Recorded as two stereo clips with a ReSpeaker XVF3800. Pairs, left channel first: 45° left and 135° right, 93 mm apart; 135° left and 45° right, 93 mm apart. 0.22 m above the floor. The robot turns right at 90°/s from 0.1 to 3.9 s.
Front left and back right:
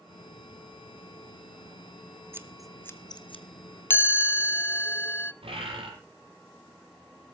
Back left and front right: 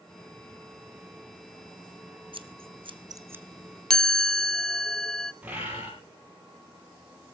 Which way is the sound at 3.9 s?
60° left.